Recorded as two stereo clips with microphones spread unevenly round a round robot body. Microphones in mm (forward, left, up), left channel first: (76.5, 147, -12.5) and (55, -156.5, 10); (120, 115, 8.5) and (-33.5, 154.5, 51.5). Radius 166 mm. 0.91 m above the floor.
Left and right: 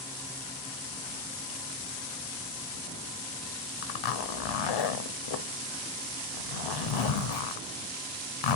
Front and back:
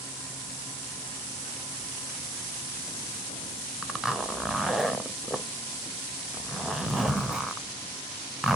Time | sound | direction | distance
3.8 | a zipper | 80° left | 0.5 m